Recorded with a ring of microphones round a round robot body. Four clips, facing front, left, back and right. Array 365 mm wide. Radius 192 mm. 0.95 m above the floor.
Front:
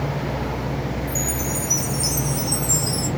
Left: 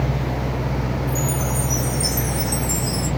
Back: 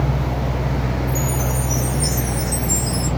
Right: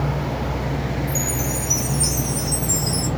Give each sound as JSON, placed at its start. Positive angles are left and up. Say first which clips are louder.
{"t": 1.1, "sound": "a chime", "louder": "left 2 dB, back 4 dB", "azimuth_deg": -55, "distance_m": 0.5}